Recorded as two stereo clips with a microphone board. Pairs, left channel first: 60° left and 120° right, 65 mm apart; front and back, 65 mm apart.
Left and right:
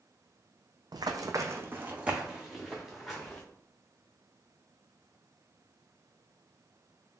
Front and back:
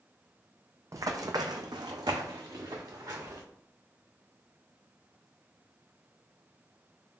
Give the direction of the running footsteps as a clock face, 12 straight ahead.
5 o'clock.